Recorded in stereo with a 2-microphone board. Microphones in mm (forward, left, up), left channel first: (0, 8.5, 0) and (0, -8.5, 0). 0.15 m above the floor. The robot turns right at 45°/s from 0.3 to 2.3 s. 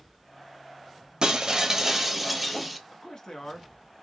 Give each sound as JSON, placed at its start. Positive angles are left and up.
{"t": 1.2, "sound": "breaking glass", "azimuth_deg": -55, "distance_m": 0.9}
{"t": 2.9, "sound": "a man speaking", "side_deg": 40, "distance_m": 1.4}